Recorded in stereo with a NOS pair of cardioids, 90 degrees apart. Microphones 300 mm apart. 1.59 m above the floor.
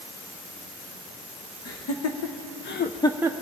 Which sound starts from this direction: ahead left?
Laughter, at 1.6 s.